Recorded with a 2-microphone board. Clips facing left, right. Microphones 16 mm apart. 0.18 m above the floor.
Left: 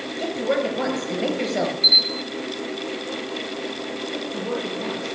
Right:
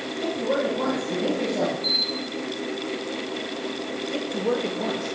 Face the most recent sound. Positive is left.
turn(degrees=-65)  # may be behind; listen again after turning